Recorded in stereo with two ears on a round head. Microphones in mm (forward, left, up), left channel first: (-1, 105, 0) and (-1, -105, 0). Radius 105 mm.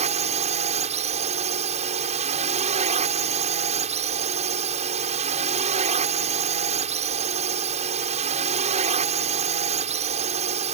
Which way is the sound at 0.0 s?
30° right (ahead or behind).